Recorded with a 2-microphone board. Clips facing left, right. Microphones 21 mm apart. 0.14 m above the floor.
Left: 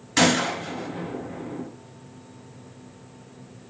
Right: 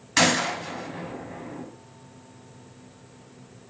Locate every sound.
0.2 s a gunshot: 10° right (ahead or behind), 1.0 m